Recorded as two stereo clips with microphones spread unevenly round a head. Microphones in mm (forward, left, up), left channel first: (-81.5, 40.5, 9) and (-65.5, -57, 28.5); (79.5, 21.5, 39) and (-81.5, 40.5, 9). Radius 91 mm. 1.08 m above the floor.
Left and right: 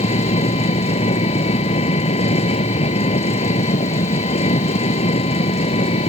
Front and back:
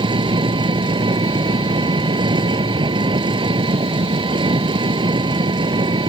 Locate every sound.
0.0 s an engine running: 110° left